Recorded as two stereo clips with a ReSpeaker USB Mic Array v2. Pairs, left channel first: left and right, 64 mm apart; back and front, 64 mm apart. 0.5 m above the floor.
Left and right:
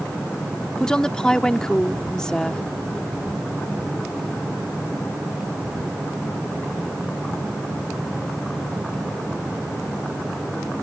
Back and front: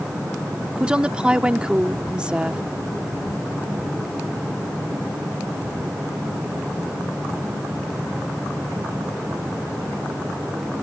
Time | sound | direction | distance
0.8 | a woman speaking | 35° left | ?